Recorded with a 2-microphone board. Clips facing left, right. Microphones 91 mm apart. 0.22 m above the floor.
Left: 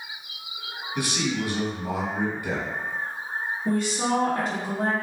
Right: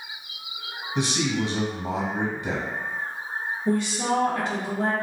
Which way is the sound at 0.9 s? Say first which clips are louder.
Right 2 dB; 25° right (ahead or behind).